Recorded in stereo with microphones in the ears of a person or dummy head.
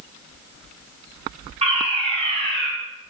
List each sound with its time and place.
1.6 s a fire alarm: 30° right (ahead or behind), 5 m